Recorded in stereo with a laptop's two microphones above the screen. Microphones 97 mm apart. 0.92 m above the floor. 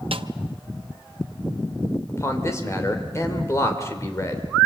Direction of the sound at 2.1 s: 30° left (ahead or behind).